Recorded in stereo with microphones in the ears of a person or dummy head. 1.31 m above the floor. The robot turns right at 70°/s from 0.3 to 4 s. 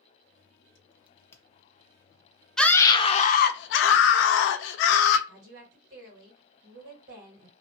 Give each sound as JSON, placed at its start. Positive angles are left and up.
{"t": 1.1, "sound": "a crack", "side_deg": -10, "distance_m": 0.6}
{"t": 2.6, "sound": "a scream", "azimuth_deg": 0, "distance_m": 0.5}
{"t": 5.3, "sound": "a woman speaking", "side_deg": -65, "distance_m": 1.8}